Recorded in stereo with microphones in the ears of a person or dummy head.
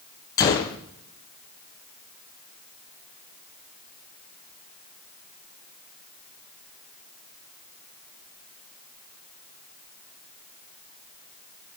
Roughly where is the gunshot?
Left.